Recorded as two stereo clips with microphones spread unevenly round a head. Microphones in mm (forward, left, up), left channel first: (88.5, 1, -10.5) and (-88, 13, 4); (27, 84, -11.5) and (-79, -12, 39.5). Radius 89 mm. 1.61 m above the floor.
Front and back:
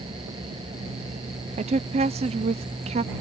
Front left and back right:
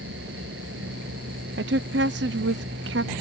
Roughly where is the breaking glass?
No breaking glass in this recording.